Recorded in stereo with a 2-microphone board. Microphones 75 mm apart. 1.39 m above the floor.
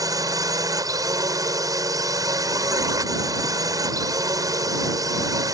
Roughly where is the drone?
Right.